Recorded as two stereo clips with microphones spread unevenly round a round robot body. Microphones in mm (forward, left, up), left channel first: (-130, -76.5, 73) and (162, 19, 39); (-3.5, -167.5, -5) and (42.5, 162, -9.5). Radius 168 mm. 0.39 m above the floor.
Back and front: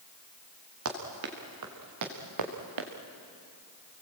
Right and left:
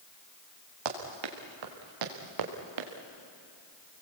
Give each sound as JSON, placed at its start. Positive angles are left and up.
{"t": 0.8, "sound": "running footsteps", "azimuth_deg": 70, "distance_m": 4.5}